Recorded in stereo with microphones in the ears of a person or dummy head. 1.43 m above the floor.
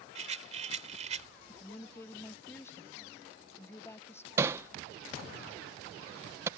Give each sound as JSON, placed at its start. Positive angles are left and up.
{"t": 0.1, "sound": "a rattle", "side_deg": -35}
{"t": 1.5, "sound": "a woman speaking", "side_deg": 15}
{"t": 4.4, "sound": "hammering", "side_deg": -20}